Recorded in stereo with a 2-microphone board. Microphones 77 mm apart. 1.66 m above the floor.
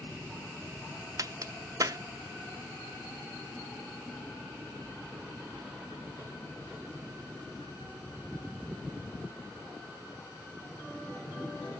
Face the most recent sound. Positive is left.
turn(degrees=-45)  # may be behind; listen again after turning